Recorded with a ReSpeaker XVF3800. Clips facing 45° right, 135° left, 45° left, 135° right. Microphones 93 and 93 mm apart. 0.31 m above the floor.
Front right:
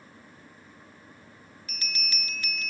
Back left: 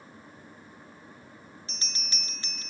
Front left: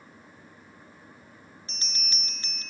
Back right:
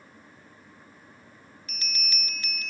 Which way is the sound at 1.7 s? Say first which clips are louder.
Front right 8 dB, back right 6 dB; 90° left.